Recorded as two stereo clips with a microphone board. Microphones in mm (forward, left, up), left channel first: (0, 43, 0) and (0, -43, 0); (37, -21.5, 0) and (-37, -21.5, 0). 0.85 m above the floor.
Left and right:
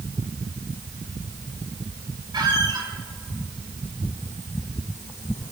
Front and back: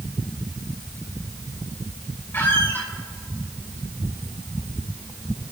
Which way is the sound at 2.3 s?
60° right.